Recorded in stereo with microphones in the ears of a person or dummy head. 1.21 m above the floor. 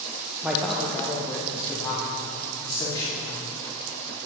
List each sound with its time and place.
0.4 s a man speaking: 10° right (ahead or behind), 0.6 m; by 3.4 s 25° left (ahead or behind), 3 m